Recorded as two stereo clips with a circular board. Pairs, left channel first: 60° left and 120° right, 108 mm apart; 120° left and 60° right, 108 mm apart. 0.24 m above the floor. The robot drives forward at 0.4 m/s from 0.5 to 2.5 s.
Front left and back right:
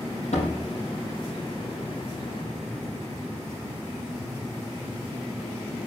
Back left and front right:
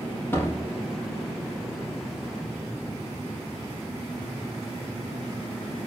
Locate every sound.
0.3 s a door slam: 50° left, 6 m; by 5.9 s 55° left, 5.5 m